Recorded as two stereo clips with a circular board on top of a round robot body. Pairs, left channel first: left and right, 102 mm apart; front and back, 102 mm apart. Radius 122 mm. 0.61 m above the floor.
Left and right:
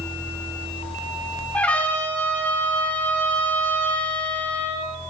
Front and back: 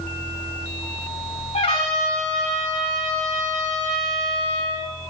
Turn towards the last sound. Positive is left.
turn(degrees=10)